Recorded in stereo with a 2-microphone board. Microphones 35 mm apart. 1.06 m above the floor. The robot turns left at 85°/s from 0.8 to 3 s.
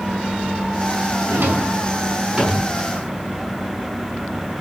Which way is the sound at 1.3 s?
70° right (ahead or behind).